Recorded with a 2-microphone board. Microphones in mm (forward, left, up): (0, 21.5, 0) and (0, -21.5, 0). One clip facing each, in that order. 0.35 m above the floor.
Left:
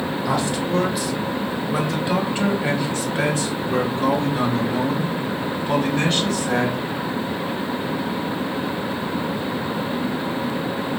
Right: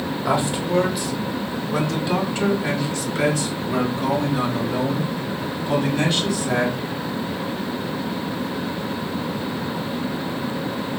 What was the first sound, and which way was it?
A man speaking, 20° right (ahead or behind).